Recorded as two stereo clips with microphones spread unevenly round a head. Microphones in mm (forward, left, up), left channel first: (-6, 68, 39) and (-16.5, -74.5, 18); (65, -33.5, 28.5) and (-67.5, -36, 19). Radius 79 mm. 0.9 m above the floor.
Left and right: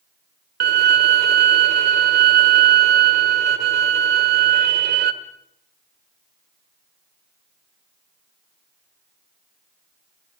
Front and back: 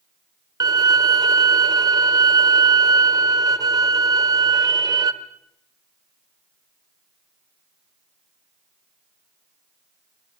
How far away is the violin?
About 1.4 m.